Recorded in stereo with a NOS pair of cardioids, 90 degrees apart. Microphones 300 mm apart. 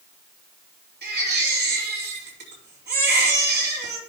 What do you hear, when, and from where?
1.0 s a baby crying: 35° right, 5 m